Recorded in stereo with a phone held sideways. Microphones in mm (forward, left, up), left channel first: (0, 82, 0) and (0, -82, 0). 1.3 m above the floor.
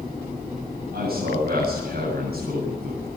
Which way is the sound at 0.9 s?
75° right (ahead or behind).